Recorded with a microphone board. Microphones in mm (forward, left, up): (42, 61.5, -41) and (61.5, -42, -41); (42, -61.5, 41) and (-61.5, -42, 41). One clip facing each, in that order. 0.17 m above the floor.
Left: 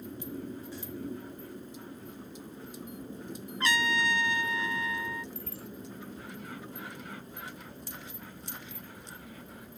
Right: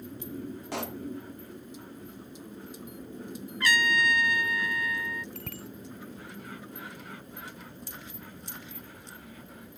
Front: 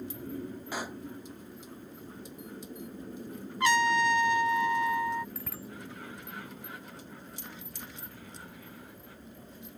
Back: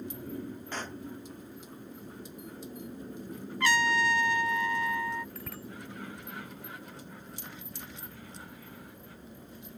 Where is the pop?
90° right.